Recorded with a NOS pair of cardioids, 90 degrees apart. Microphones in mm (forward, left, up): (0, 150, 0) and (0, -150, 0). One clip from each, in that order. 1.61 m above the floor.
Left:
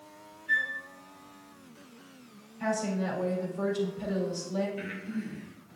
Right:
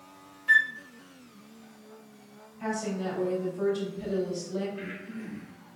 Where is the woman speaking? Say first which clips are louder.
Left 1 dB; 25° left, 3.5 m.